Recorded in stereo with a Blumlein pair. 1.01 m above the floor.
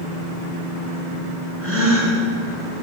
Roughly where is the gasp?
Ahead.